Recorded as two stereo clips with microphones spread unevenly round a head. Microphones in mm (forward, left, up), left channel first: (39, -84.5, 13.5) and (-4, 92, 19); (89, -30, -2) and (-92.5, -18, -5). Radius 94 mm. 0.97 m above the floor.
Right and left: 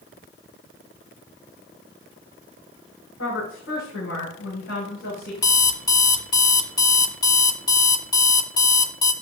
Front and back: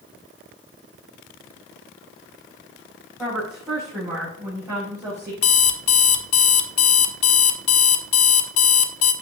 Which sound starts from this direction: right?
A woman speaking, at 3.2 s.